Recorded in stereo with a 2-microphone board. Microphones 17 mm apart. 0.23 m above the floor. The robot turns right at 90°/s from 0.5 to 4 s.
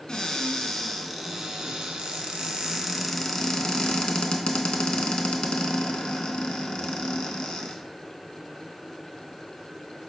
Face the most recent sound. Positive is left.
turn(degrees=85)